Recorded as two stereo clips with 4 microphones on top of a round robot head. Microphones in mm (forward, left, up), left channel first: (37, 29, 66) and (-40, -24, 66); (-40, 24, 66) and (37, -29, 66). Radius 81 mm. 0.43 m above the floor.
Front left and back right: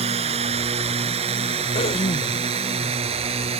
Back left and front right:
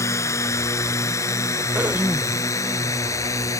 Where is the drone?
155° right.